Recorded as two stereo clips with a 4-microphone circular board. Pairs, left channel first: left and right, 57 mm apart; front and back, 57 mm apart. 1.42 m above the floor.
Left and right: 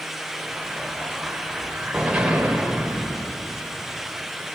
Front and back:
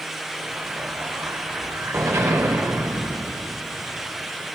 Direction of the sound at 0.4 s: 160° right.